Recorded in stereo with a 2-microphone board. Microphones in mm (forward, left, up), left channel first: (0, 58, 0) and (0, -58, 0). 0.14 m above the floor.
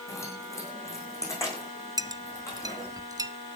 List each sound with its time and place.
0.1 s keys jangling: 25° left (ahead or behind), 7 m
2.0 s a clink: 30° right (ahead or behind), 0.7 m